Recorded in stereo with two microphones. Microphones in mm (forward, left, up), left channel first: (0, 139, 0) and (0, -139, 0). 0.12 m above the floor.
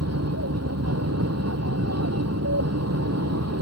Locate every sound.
0.0 s an aircraft: 60° right (ahead or behind)